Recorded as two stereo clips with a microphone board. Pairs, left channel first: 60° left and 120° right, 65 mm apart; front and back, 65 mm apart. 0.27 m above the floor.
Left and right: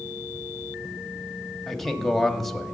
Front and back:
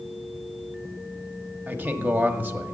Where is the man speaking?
145° left, 1.1 m.